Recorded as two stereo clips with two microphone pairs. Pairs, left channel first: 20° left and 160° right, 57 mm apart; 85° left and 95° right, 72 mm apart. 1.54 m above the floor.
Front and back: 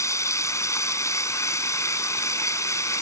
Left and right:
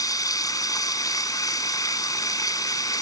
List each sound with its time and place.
0.0 s running water: 50° left